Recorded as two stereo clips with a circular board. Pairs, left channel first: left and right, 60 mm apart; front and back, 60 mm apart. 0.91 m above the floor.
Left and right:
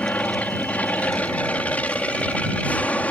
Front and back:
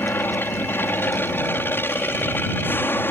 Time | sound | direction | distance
0.0 | an aircraft | 35° left | ?